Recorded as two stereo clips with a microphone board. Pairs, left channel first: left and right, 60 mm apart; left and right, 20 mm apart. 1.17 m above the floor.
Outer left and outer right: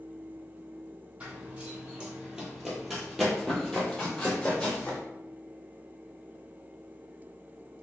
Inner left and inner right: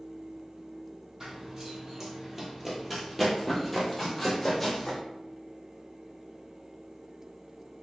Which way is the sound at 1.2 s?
25° right (ahead or behind).